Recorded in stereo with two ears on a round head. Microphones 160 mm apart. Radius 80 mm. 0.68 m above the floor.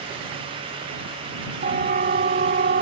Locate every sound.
1.6 s a siren: 45° right (ahead or behind); by 2.8 s 50° right (ahead or behind)